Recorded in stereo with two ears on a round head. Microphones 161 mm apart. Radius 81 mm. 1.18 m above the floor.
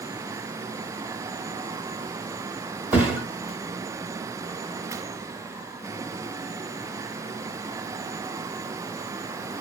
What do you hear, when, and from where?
2.9 s a thud: 10° right (ahead or behind), 1.6 m